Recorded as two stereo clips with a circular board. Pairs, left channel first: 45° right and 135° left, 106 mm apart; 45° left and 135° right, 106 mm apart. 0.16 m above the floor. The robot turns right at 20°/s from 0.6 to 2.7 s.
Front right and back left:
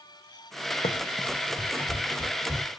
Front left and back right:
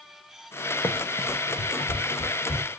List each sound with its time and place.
0.8 s running footsteps: 30° right, 0.6 m; by 2.7 s 60° left, 2 m